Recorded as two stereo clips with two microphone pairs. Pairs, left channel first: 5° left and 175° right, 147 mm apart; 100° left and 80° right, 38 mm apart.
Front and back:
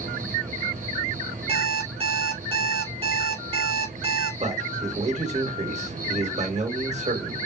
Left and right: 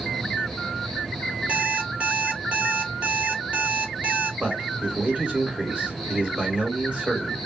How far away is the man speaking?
About 2.5 m.